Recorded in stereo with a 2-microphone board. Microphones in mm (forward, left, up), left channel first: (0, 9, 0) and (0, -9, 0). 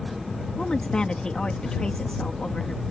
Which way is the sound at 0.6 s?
85° left.